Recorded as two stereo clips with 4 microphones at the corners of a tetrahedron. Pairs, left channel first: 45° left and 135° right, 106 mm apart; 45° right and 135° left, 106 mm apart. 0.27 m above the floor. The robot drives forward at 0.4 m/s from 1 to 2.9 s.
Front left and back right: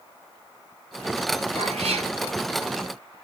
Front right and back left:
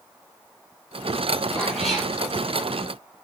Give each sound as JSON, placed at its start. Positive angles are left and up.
{"t": 1.6, "sound": "a cat meowing", "azimuth_deg": -130, "distance_m": 3.0}